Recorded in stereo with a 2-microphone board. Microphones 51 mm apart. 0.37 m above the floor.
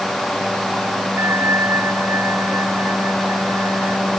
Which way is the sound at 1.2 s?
60° right (ahead or behind).